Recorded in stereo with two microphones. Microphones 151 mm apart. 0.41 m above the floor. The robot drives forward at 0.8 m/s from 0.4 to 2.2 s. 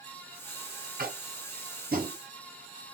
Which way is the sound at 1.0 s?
85° right.